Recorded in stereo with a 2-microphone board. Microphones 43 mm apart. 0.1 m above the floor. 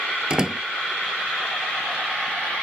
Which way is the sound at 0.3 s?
20° right (ahead or behind).